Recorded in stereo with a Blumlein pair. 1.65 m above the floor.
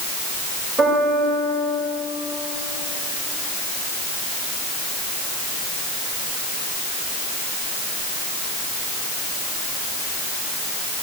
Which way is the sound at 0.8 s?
10° right.